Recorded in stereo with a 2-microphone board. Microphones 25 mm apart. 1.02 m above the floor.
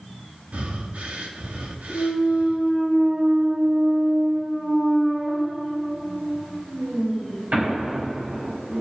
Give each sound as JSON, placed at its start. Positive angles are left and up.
{"t": 0.5, "sound": "breathing", "side_deg": -70, "distance_m": 1.8}
{"t": 1.9, "sound": "a clunk", "side_deg": -75, "distance_m": 5.0}